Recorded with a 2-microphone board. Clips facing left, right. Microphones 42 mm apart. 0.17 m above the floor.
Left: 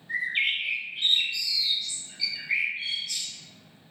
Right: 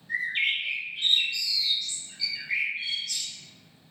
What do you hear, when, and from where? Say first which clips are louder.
0.1 s a bird: even; 15° left (ahead or behind), 1.7 m